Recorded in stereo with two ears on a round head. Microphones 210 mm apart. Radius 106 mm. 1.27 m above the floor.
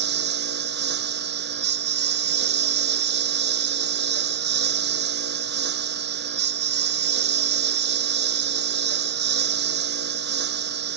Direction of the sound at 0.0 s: 45° right (ahead or behind).